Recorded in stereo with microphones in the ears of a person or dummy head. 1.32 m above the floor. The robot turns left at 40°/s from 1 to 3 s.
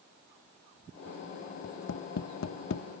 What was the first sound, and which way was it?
Tapping, 65° left (ahead or behind).